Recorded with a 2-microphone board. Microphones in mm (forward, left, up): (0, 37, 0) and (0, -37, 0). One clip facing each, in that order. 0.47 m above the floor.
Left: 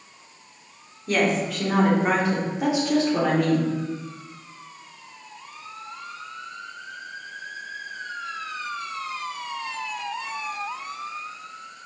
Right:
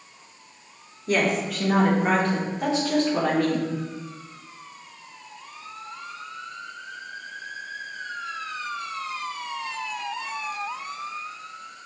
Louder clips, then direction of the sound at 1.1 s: Left 1 dB; 5° right (ahead or behind).